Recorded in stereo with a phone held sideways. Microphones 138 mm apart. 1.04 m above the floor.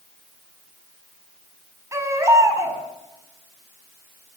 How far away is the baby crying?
About 5.5 m.